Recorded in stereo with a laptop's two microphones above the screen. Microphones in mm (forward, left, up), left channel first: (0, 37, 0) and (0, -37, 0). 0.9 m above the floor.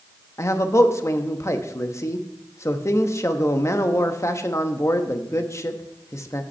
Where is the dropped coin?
No dropped coin in this recording.